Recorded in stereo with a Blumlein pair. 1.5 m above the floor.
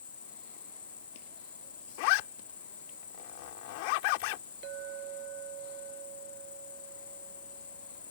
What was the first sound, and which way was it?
An insect, 70° left.